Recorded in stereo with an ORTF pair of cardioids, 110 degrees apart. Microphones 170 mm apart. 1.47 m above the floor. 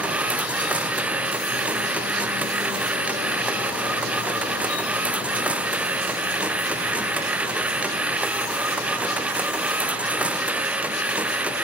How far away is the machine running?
About 0.8 m.